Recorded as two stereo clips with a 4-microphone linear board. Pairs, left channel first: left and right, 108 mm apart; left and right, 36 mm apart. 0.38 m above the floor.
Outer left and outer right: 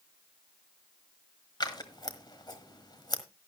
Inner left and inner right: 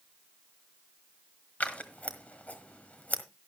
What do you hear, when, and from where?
1.6 s scissors: 40° left (ahead or behind), 1.5 m